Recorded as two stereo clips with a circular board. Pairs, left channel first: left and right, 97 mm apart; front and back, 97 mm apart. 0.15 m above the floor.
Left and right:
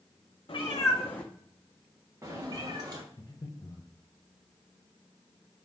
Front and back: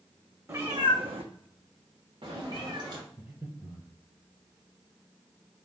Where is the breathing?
135° left, 1.2 m.